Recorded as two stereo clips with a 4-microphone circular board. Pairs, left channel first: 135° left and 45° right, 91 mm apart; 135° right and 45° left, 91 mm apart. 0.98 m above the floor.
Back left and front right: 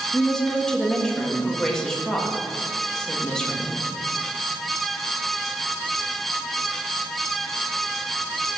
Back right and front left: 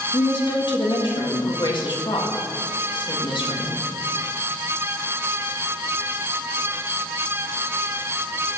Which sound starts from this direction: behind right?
A woman speaking, at 0.1 s.